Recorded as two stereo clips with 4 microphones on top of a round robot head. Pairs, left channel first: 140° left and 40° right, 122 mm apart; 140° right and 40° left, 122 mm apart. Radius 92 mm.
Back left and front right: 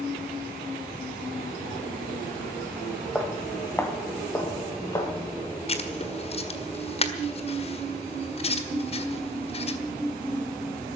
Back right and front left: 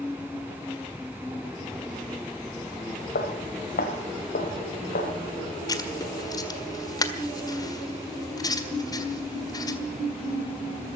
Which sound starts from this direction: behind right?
Footsteps, at 3.1 s.